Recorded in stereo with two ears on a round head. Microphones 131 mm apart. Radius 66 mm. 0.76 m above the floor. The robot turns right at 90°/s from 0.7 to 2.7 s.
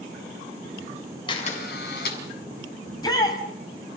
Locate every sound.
1.3 s a camera shutter: 30° left, 5.5 m; by 2.2 s 115° left, 5.5 m
2.9 s a shout: 30° left (ahead or behind), 4.5 m